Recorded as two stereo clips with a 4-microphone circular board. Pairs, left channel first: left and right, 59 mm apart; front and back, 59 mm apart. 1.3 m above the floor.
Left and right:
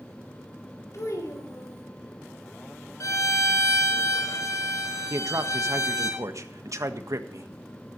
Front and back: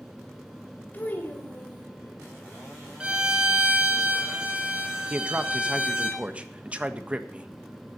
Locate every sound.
0.9 s a child speaking: 60° left, 3.5 m
3.0 s a violin: 110° left, 3.5 m
5.1 s a man speaking: 110° right, 1.5 m